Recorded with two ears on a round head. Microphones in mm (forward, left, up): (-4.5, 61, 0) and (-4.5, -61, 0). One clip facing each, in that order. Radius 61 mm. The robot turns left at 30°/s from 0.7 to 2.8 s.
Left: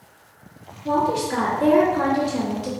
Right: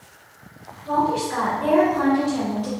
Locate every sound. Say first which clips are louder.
0.8 s a woman speaking: even; 60° left, 1.4 m; by 2.7 s 5° left, 1.4 m